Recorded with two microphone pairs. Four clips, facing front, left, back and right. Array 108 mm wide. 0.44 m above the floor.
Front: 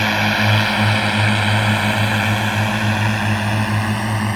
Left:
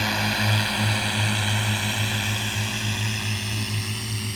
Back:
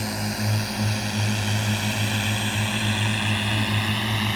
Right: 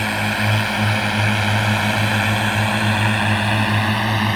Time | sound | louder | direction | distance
0.0 | a drone | right 4 dB, front 11 dB | 10° right | ?